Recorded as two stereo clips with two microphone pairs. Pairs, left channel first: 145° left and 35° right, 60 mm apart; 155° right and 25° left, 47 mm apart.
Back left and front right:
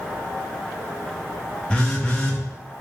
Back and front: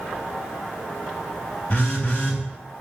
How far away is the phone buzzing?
About 1.0 m.